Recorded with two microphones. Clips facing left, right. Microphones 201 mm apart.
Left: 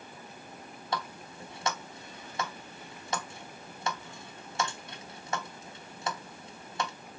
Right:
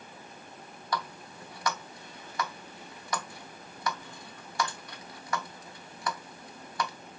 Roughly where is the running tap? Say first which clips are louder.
Right 1 dB; left.